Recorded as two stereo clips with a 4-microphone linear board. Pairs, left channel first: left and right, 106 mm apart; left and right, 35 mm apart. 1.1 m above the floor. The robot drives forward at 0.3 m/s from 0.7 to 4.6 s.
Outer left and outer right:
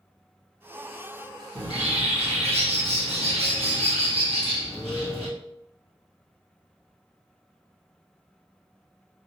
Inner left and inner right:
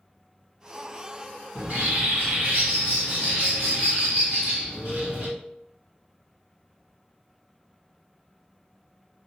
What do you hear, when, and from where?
1.6 s a bird: 75° right (ahead or behind), 1.5 m; by 5.3 s 65° right (ahead or behind), 1.6 m